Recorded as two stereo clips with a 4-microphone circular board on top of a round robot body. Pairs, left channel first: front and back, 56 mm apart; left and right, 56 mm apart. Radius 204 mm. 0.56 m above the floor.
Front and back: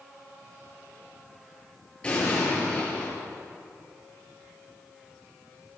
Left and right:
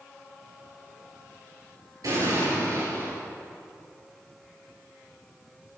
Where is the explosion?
70° right, 8.5 m.